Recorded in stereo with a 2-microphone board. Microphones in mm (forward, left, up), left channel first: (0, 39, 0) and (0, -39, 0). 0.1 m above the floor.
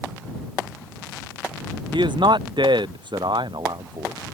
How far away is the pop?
I don't hear a pop.